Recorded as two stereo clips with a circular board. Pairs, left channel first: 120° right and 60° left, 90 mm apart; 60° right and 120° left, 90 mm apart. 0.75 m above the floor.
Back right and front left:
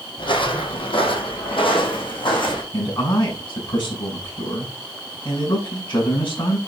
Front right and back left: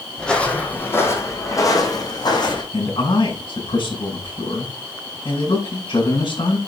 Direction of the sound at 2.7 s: 85° right.